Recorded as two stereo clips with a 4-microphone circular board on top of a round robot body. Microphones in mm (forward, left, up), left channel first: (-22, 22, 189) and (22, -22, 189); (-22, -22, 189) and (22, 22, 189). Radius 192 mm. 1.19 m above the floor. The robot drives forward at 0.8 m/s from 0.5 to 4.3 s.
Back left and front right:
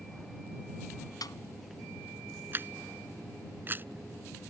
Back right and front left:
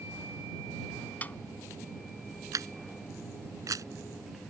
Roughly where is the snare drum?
Behind.